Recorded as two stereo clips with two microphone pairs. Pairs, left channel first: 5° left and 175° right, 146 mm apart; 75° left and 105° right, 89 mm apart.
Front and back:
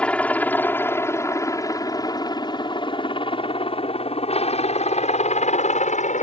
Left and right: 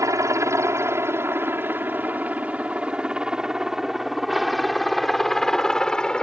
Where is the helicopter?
70° right; by 6.2 s straight ahead.